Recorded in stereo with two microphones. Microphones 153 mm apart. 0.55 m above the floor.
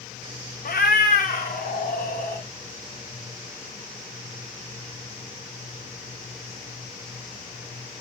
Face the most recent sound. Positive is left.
turn(degrees=85)